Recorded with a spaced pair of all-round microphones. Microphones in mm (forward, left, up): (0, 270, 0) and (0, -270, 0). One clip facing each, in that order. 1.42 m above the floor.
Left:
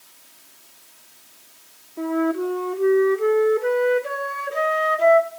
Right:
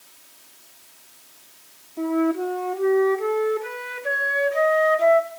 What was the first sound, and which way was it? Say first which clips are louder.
A flute: even; 15° right (ahead or behind).